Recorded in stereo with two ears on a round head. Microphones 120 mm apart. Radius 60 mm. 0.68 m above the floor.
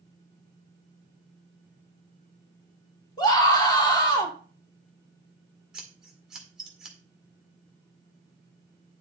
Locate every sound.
3.2 s a scream: 30° left (ahead or behind), 2.0 m
5.7 s scissors: 5° right (ahead or behind), 1.8 m